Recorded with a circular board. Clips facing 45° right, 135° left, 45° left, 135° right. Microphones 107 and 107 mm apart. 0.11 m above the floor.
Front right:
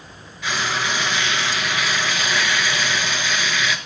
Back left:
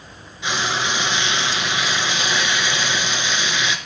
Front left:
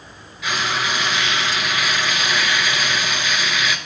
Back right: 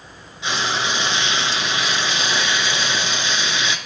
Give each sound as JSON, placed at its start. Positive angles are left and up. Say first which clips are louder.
{"t": 0.4, "sound": "frying", "louder": "back left 1 dB, even", "azimuth_deg": -175, "distance_m": 0.7}